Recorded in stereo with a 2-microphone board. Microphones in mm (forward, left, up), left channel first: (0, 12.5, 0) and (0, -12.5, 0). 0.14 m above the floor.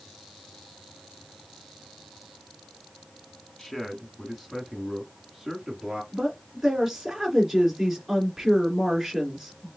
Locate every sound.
3.6 s a man speaking: 25° left (ahead or behind), 1.4 m; by 6.0 s centre (ahead or behind), 1.9 m
6.1 s a woman speaking: 10° right (ahead or behind), 2.5 m